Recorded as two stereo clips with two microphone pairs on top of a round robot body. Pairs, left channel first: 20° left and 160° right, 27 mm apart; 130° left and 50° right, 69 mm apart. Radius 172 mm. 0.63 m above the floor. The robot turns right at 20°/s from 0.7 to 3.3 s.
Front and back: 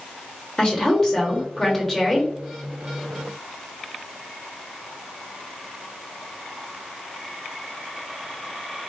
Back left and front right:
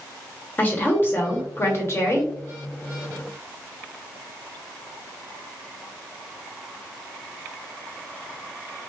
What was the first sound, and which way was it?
A woman speaking, 80° left.